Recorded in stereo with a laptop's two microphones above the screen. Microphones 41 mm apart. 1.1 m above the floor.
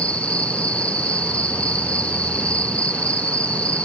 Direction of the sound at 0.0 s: 35° left (ahead or behind).